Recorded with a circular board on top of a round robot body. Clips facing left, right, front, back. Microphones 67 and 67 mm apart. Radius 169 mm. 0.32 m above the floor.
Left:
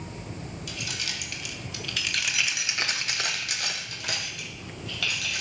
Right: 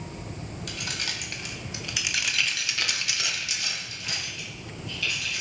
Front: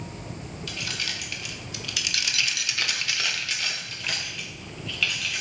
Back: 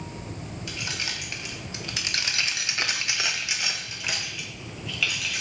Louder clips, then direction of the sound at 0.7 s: Right 2 dB, even; 115° right.